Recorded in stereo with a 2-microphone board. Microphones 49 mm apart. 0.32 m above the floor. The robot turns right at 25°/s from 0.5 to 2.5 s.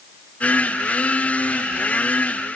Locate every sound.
Only background noise.